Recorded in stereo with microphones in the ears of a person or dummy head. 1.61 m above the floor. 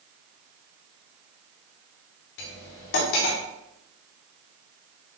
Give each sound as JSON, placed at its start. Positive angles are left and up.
{"t": 2.4, "sound": "cutlery clinking", "side_deg": 65, "distance_m": 2.0}